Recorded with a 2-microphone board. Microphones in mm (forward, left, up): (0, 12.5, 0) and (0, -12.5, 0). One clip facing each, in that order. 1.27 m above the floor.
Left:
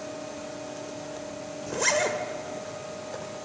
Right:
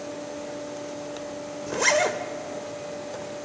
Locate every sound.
1.7 s a zipper: 20° right (ahead or behind), 1.2 m